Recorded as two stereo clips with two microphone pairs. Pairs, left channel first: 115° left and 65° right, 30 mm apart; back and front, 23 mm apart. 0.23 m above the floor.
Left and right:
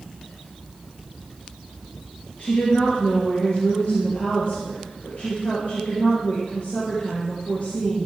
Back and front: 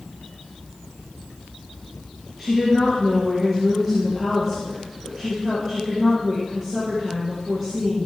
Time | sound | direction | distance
2.4 | a woman speaking | 80° left | 3.5 m